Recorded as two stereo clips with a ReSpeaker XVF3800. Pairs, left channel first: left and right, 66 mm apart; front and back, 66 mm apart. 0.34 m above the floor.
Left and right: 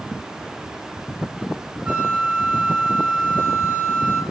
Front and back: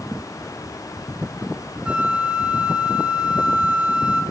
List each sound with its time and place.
1.9 s a flute: 130° right, 0.8 m